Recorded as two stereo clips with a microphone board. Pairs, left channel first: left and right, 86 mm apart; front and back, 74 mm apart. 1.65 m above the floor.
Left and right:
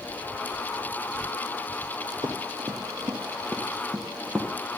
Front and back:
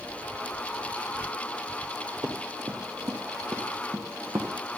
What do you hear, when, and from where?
2.2 s running footsteps: 140° right, 3 m; by 4.5 s 165° left, 2.5 m